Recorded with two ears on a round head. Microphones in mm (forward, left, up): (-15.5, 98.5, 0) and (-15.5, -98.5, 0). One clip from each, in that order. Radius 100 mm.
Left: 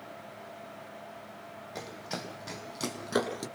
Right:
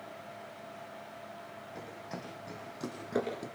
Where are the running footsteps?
70° left (ahead or behind), 4 m; by 3.5 s 60° left (ahead or behind), 4 m.